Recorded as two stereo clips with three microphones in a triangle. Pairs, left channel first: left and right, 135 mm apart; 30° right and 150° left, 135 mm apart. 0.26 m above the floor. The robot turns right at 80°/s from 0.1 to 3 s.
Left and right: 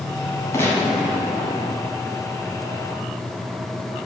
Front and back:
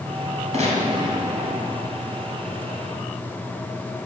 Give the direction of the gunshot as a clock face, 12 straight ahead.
7 o'clock.